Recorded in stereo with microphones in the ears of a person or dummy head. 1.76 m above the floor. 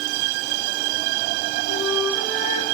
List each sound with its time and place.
1.7 s a flute: 55° left (ahead or behind), 2.5 m